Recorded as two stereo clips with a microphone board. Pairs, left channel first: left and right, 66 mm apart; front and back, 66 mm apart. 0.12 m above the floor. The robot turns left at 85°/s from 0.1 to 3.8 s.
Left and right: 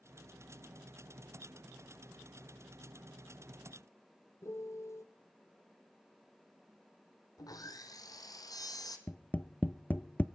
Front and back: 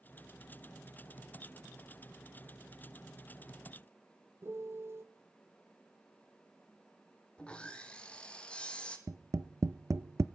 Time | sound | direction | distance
4.4 | a piano | 130° left | 1.2 m
7.4 | sawing | 70° left | 1.6 m
9.1 | tapping | 150° left | 0.6 m